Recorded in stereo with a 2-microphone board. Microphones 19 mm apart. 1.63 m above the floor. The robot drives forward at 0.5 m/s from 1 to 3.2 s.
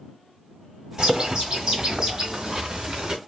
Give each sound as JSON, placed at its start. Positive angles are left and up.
{"t": 1.0, "sound": "a bird", "side_deg": -25, "distance_m": 1.9}